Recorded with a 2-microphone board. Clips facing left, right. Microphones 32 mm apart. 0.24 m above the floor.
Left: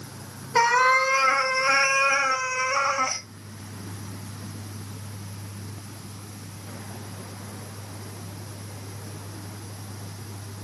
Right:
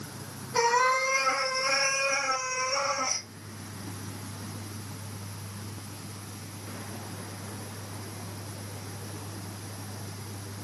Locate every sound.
0.6 s a cat meowing: 55° left (ahead or behind), 1.2 m